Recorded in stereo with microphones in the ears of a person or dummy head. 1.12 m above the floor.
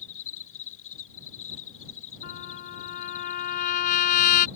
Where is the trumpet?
45° left (ahead or behind).